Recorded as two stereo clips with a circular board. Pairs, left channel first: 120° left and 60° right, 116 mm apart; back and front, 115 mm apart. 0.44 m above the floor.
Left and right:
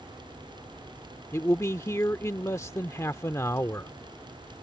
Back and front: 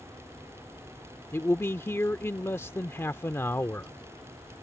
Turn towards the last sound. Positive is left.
turn(degrees=145)